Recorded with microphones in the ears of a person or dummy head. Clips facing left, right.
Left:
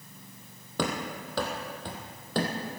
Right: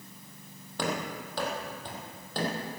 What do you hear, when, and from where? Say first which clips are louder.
0.8 s running footsteps: left 1 dB; 65° left (ahead or behind), 2.5 m; by 2.8 s 50° left (ahead or behind), 3 m